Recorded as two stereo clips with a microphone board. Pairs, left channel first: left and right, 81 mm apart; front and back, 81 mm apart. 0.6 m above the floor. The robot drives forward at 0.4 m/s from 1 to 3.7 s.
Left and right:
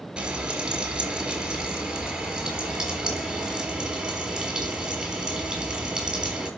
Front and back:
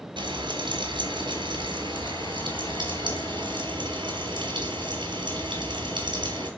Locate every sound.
0.2 s frying: 170° right, 4.5 m